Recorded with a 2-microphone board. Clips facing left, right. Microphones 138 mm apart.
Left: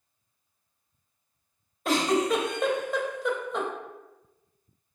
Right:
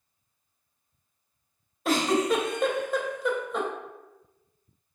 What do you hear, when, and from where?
1.9 s a giggle: centre (ahead or behind), 0.5 m